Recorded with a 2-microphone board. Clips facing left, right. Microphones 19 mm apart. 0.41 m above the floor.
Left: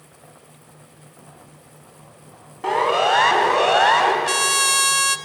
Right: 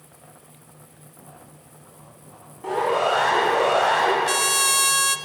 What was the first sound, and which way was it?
A siren, 45° left (ahead or behind).